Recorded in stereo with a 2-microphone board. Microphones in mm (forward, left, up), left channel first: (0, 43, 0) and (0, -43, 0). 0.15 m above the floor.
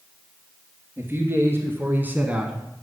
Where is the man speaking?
25° right (ahead or behind), 2.5 m; by 2.7 s 5° right (ahead or behind), 1.2 m.